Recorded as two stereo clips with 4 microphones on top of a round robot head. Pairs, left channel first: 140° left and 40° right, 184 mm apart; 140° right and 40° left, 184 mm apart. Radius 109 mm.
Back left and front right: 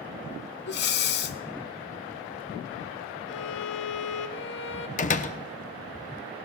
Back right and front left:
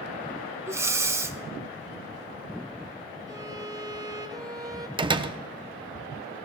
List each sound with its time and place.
0.7 s breathing: 115° left, 0.7 m
3.3 s a violin: 110° left, 0.7 m
5.0 s a door slam: 100° left, 0.7 m